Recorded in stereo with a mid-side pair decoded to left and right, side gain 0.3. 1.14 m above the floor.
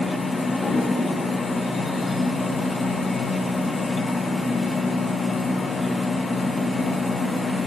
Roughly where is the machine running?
Ahead left.